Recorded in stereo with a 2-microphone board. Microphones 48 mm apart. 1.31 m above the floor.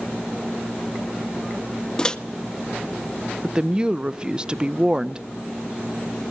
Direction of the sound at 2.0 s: 20° left (ahead or behind).